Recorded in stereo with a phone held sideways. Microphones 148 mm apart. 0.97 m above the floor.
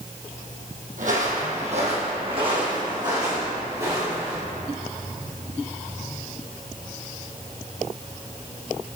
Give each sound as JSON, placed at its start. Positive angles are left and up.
{"t": 1.0, "sound": "footsteps", "side_deg": -65, "distance_m": 2.0}